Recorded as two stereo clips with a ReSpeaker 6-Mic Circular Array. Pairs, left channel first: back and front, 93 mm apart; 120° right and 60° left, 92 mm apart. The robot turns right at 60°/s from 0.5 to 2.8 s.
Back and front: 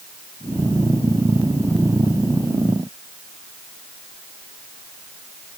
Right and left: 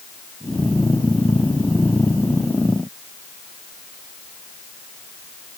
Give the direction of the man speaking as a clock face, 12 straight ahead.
I don't hear a man speaking.